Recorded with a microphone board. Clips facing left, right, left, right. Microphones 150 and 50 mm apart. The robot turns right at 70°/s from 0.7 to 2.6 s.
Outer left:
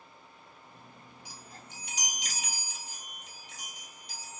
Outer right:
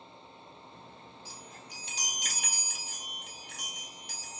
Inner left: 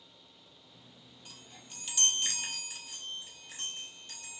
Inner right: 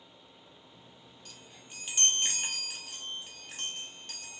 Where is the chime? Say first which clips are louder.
Outer right 1 dB, even; 160° left, 1.0 m; by 4.4 s 105° right, 1.0 m.